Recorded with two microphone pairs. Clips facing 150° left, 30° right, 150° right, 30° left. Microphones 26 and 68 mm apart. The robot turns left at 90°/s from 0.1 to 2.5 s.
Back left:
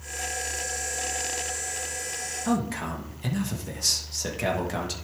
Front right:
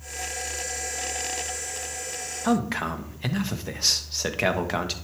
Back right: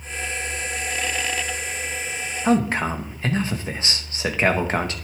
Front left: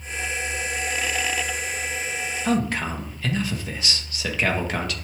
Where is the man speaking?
85° right, 1.3 m; by 4.9 s 90° right, 1.3 m.